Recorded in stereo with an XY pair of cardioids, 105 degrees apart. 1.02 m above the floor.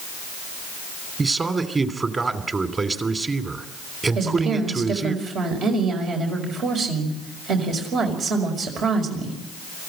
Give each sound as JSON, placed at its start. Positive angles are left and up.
{"t": 1.2, "sound": "a man speaking", "azimuth_deg": -30, "distance_m": 3.0}
{"t": 4.2, "sound": "a woman speaking", "azimuth_deg": -70, "distance_m": 5.5}